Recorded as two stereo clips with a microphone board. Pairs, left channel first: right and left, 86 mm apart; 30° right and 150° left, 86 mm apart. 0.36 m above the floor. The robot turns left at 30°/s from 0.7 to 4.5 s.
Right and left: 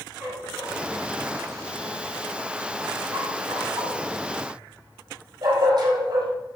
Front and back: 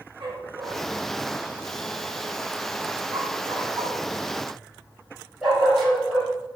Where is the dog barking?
170° left, 6 m; by 6.3 s 60° left, 6 m.